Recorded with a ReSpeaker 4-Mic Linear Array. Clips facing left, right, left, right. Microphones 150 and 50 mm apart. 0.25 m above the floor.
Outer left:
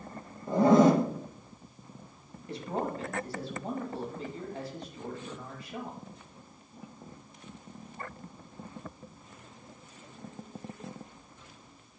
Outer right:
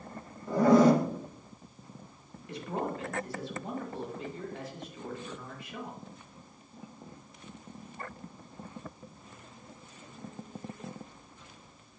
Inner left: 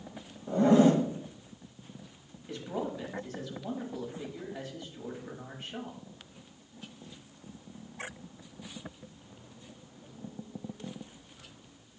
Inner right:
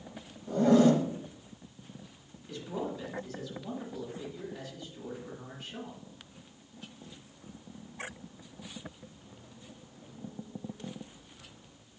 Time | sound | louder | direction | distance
0.5 | a zipper | even, inner left 1 dB | 25° left (ahead or behind) | 0.6 m
2.5 | a man speaking | outer left 1 dB, inner left 1 dB | 35° left (ahead or behind) | 1.1 m